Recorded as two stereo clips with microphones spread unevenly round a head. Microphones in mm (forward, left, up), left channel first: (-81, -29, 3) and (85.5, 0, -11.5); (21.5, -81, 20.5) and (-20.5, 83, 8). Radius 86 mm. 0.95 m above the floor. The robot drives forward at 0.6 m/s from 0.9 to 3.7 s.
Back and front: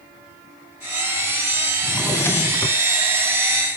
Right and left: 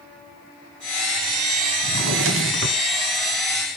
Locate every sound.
1.8 s a drawer: 105° left, 1.8 m; by 2.8 s 125° left, 2 m